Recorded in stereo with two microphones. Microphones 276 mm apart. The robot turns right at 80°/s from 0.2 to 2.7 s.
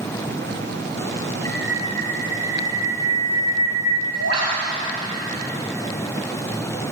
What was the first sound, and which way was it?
A bird, 165° left.